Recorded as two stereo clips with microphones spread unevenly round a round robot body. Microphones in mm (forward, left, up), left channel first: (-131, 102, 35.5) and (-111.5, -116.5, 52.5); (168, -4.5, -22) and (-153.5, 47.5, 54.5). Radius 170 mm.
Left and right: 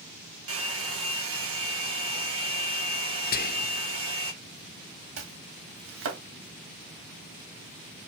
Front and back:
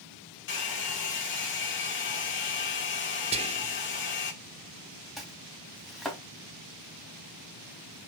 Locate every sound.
0.5 s a hair dryer: 60° right, 1.8 m
3.3 s whispering: 90° left, 0.6 m
5.2 s chopping: 100° right, 1.5 m